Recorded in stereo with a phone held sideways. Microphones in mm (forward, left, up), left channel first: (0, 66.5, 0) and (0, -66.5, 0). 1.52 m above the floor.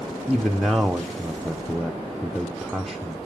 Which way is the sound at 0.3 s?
Centre (ahead or behind).